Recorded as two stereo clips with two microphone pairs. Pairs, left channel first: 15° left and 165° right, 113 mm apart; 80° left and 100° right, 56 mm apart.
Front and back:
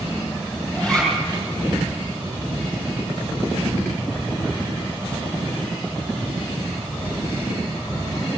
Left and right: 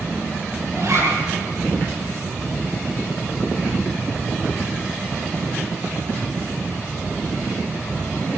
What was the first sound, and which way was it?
A zipper, 65° right.